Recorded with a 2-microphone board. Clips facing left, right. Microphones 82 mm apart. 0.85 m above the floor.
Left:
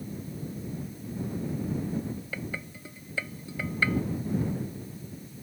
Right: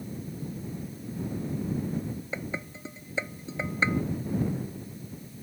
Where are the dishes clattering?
20° right (ahead or behind).